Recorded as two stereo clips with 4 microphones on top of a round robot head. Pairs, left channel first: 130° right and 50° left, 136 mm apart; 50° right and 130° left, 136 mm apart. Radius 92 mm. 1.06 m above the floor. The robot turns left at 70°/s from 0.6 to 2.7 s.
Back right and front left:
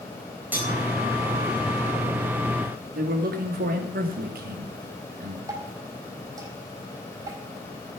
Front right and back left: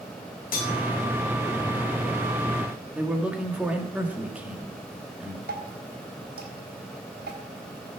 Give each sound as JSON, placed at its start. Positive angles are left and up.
{"t": 0.5, "sound": "cutlery clinking", "azimuth_deg": -25, "distance_m": 4.0}
{"t": 3.0, "sound": "a man speaking", "azimuth_deg": 50, "distance_m": 2.0}
{"t": 5.5, "sound": "dripping", "azimuth_deg": 120, "distance_m": 4.0}